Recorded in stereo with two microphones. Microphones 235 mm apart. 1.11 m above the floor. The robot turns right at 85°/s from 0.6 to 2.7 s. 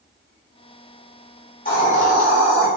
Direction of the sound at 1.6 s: 35° left.